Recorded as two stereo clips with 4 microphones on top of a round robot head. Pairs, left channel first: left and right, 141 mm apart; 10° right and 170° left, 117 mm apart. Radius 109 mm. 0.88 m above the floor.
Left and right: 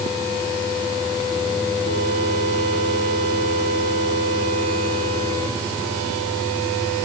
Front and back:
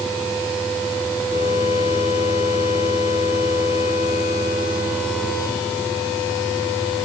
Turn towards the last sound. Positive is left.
No sound to turn to.